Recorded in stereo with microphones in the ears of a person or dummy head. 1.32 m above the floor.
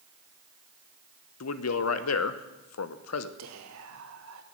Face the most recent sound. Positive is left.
turn(degrees=-70)  # may be behind; listen again after turning